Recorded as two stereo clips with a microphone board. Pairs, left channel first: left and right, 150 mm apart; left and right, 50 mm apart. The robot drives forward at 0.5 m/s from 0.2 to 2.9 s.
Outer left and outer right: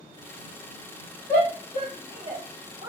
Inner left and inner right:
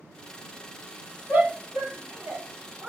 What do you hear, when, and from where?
1.3 s a shout: 35° right (ahead or behind), 1.1 m; by 2.9 s 20° right (ahead or behind), 1.8 m